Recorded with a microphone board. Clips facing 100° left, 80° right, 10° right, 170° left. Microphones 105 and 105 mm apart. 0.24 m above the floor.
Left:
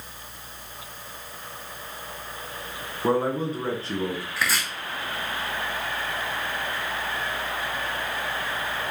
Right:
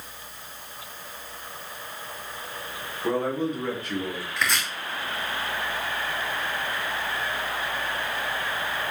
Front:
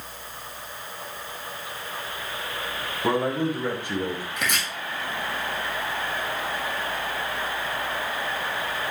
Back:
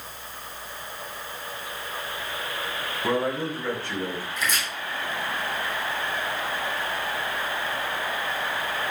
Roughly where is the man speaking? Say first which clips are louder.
Left 2 dB, front 2 dB; ahead left.